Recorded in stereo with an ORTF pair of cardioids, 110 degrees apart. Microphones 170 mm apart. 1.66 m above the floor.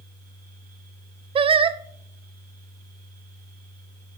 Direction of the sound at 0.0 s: 60° right.